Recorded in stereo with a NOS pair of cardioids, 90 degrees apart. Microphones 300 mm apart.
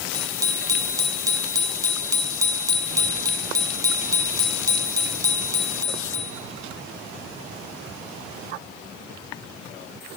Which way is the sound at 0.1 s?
10° right.